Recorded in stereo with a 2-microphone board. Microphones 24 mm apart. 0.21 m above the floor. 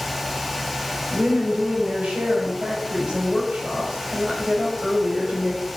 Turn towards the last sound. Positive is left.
turn(degrees=-60)  # may be behind; listen again after turning